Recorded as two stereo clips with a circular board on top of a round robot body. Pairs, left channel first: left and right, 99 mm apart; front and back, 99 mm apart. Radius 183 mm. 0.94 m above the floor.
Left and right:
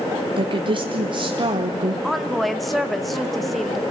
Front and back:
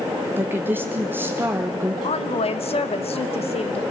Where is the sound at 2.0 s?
Straight ahead, 1.2 m.